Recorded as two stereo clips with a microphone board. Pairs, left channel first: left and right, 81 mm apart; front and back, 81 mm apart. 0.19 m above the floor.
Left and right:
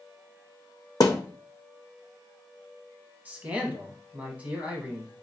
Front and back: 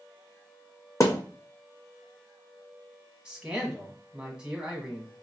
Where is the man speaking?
125° right, 1.0 m.